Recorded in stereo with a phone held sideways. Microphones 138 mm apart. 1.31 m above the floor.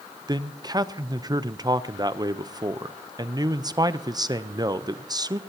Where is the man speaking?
30° right (ahead or behind), 0.6 m.